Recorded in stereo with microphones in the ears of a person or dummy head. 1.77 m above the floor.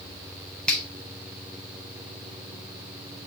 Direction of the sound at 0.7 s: 5° left (ahead or behind).